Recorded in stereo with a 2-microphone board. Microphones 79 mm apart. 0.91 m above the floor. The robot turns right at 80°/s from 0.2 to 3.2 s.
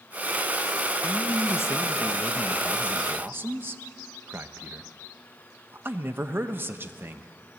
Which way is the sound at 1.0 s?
60° left.